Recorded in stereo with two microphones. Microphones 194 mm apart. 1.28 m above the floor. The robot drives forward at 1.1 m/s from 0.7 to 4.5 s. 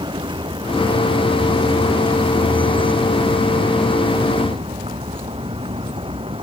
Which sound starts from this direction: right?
A vehicle, at 0.0 s.